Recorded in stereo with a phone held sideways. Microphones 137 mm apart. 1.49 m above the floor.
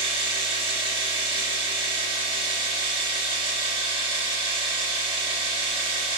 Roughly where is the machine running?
Right.